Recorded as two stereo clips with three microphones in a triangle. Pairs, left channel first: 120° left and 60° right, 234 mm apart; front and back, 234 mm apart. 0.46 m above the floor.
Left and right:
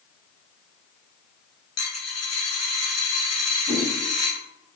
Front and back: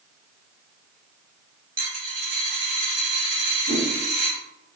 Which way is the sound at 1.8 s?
125° left.